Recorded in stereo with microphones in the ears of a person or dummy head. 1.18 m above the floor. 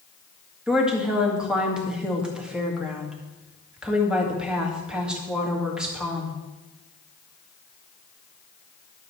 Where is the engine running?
I don't hear an engine running.